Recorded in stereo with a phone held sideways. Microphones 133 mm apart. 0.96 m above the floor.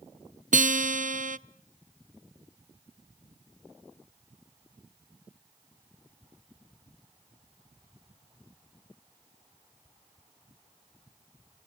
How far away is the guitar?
About 0.6 m.